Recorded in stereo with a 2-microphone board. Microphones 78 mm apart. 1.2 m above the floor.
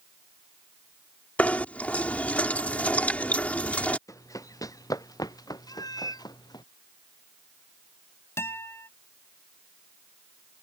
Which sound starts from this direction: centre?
Knocking, at 1.4 s.